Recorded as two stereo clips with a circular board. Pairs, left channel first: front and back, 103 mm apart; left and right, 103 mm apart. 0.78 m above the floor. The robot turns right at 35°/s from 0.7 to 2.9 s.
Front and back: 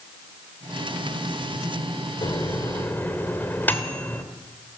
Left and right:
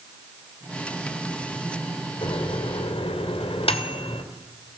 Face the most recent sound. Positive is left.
turn(degrees=70)